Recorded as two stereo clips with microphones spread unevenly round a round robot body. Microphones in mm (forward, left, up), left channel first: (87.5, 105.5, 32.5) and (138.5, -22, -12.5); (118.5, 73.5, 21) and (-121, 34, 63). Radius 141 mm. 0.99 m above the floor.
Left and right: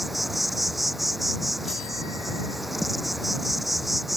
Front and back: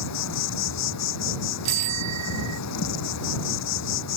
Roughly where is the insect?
Ahead left.